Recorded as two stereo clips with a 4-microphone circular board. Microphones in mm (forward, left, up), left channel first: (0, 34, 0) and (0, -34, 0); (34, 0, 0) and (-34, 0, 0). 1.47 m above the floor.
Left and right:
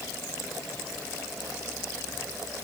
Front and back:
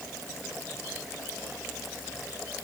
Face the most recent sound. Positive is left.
No sound to turn to.